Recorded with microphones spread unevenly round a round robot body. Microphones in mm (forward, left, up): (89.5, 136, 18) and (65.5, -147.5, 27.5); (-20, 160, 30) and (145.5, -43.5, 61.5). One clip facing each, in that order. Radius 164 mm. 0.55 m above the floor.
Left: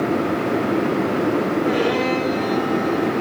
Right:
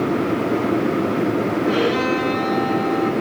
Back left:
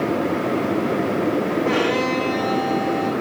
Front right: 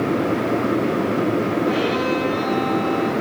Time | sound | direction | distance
1.6 | a violin | 175° left | 7 m